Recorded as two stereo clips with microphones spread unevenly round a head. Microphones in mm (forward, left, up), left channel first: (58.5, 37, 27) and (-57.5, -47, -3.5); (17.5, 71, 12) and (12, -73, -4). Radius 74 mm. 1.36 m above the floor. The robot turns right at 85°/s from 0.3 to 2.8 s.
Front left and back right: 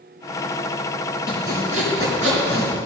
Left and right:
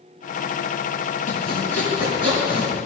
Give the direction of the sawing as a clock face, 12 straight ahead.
8 o'clock.